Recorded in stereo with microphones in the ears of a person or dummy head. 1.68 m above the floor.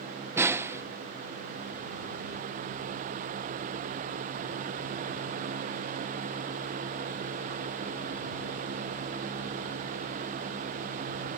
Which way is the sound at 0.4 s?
15° right (ahead or behind).